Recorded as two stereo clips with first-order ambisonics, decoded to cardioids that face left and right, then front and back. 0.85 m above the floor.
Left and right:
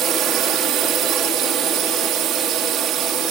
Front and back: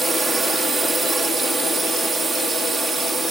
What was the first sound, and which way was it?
A drone, 110° right.